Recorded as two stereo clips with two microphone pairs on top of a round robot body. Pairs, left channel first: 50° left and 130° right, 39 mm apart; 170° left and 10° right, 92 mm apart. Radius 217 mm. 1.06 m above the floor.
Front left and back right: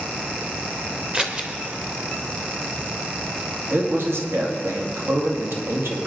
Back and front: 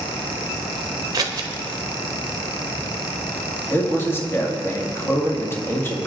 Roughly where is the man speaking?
Behind right.